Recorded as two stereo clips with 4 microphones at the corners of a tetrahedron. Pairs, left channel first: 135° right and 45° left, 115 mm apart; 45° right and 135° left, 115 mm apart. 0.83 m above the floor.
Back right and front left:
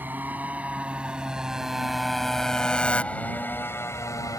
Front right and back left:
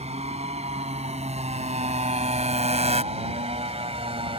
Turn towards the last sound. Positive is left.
turn(degrees=165)